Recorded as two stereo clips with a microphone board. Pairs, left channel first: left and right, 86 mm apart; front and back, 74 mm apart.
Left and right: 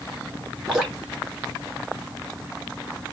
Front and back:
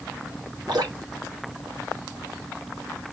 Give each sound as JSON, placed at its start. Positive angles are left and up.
{"t": 0.7, "sound": "dripping", "azimuth_deg": -175, "distance_m": 1.5}